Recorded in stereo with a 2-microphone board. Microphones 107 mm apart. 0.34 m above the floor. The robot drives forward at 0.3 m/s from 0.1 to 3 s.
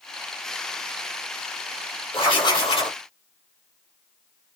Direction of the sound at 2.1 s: 50° left (ahead or behind).